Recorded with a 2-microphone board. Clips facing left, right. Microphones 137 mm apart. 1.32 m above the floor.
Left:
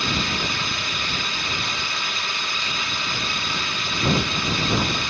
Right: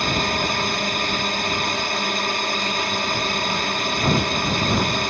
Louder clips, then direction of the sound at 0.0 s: Right 4 dB; 50° right (ahead or behind).